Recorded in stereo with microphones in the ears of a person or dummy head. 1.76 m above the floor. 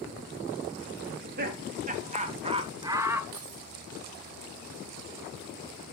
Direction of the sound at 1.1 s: 45° right (ahead or behind).